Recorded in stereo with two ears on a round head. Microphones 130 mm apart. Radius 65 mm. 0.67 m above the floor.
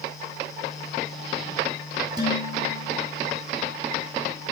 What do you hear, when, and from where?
2.2 s dishes clattering: 30° right (ahead or behind), 7.5 m